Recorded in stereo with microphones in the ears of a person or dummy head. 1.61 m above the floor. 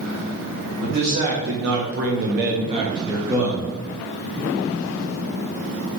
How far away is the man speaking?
About 1.6 m.